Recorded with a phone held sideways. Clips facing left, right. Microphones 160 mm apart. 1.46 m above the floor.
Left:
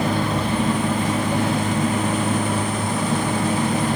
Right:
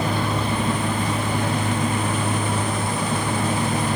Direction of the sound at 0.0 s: 85° left.